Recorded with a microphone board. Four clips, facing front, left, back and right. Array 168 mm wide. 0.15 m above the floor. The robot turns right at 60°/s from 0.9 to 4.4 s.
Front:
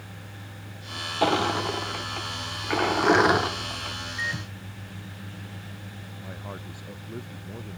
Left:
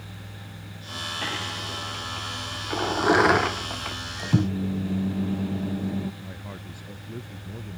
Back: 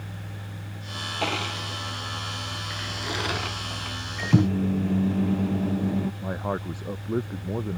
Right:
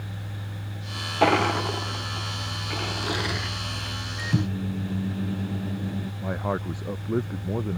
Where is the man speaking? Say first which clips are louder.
Right 12 dB, back 10 dB; 125° right.